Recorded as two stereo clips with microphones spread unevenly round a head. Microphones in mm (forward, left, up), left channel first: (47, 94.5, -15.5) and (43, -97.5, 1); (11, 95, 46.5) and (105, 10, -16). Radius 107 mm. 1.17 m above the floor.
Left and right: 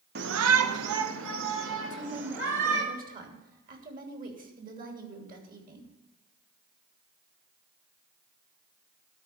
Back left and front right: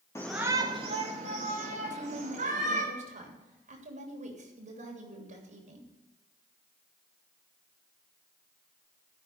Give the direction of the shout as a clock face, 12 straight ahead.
5 o'clock.